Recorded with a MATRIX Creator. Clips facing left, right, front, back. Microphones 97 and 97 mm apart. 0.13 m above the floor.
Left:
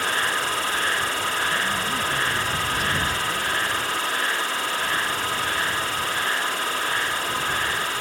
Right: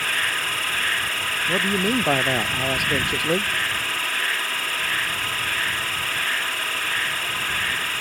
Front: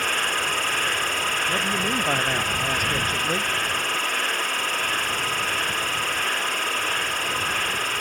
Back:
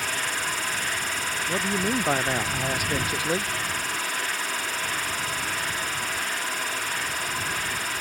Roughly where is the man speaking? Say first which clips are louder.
Right 3 dB, back 3 dB; right.